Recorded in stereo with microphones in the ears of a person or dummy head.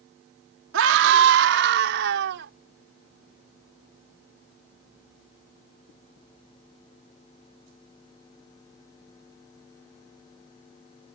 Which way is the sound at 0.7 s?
70° right (ahead or behind).